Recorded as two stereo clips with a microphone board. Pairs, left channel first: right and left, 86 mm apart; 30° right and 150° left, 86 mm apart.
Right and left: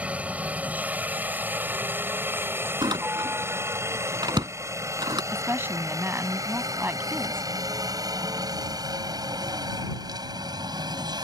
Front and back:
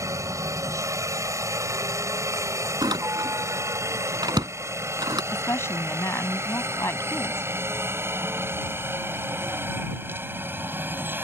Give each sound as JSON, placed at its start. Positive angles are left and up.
{"t": 0.0, "sound": "a helicopter", "azimuth_deg": 155}
{"t": 2.8, "sound": "a door slam", "azimuth_deg": 120}
{"t": 5.3, "sound": "a woman speaking", "azimuth_deg": 25}